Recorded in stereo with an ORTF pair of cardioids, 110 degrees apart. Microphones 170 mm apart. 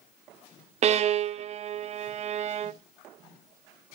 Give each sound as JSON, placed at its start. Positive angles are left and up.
{"t": 0.8, "sound": "a violin", "azimuth_deg": -40, "distance_m": 0.5}